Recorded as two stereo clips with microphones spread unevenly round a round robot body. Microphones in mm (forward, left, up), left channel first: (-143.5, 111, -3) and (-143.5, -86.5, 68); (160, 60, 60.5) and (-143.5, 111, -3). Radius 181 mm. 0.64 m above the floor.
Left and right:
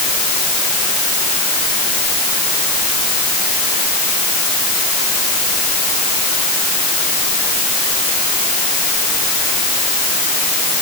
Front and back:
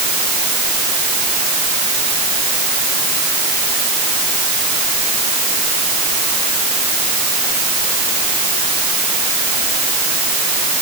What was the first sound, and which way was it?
Only background noise.